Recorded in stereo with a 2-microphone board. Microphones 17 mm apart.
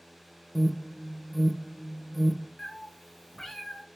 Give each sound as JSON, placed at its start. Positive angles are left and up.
{"t": 0.6, "sound": "an alarm", "side_deg": 0, "distance_m": 0.6}
{"t": 2.6, "sound": "a cat meowing", "side_deg": 30, "distance_m": 0.8}